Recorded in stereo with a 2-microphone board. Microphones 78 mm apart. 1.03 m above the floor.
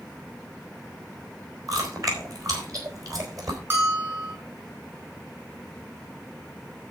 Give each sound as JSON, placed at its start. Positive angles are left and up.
{"t": 1.7, "sound": "chewing", "side_deg": -50, "distance_m": 4.0}
{"t": 3.7, "sound": "a bell", "side_deg": -35, "distance_m": 5.0}